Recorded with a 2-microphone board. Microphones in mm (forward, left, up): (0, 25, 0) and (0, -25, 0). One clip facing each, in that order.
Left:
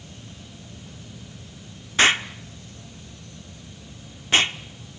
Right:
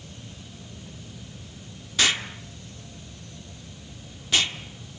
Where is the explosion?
35° left (ahead or behind), 1.2 m.